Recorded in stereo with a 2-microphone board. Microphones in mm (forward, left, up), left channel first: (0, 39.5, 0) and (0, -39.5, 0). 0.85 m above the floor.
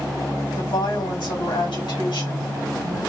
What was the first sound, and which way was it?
A woman speaking, 75° left (ahead or behind).